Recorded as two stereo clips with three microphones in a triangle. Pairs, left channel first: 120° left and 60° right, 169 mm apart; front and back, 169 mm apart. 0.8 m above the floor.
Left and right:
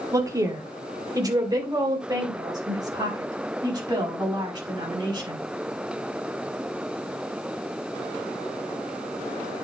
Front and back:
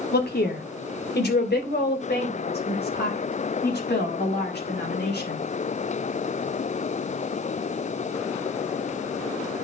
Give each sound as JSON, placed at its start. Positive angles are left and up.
{"t": 0.1, "sound": "a woman speaking", "azimuth_deg": 10, "distance_m": 1.6}